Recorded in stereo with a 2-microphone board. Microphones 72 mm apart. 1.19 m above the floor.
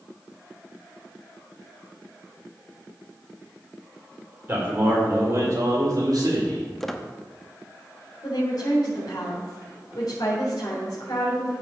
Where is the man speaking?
30° right (ahead or behind), 4 m; by 6.7 s 70° right (ahead or behind), 4 m.